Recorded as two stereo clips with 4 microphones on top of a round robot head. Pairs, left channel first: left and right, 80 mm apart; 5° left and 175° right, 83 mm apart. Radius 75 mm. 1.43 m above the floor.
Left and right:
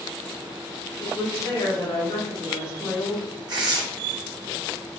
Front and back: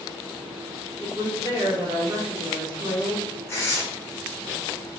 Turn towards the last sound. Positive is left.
turn(degrees=-55)